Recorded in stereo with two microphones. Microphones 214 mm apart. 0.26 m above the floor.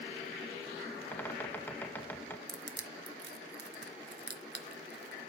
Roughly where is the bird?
Centre.